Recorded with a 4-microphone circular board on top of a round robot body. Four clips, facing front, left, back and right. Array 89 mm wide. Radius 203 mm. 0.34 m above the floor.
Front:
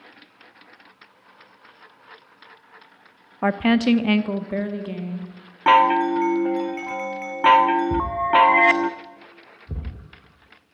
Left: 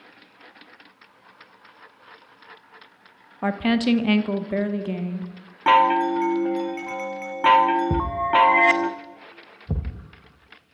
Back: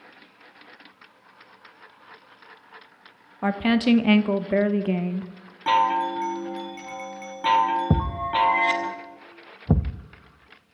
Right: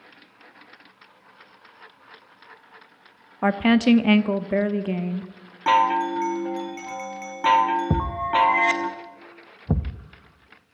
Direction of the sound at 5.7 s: 20° left.